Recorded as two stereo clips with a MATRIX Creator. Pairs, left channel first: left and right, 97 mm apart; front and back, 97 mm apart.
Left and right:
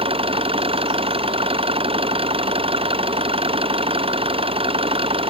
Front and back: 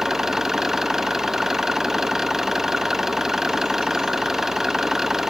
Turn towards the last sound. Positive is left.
turn(degrees=-95)